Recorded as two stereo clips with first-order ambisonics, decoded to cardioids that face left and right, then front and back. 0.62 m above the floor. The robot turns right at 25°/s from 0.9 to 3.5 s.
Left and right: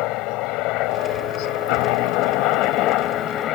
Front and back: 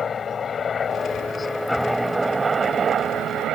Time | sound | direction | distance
0.0 | a helicopter | 70° left | ?